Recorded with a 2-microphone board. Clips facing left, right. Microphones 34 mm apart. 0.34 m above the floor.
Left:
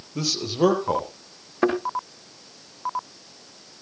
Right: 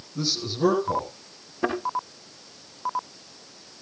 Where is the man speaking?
80° left, 7 m.